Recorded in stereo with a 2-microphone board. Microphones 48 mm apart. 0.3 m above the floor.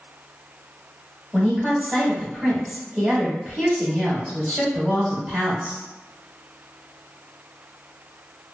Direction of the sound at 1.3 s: 15° right (ahead or behind).